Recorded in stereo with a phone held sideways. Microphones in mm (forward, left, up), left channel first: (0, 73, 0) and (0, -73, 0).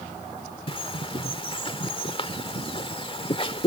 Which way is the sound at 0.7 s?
40° left (ahead or behind).